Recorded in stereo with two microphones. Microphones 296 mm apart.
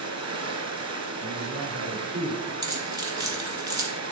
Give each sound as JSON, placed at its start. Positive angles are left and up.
{"t": 0.0, "sound": "running water", "side_deg": -65, "distance_m": 1.1}
{"t": 1.2, "sound": "a man speaking", "side_deg": -55, "distance_m": 4.5}
{"t": 2.6, "sound": "keys jangling", "side_deg": -70, "distance_m": 1.8}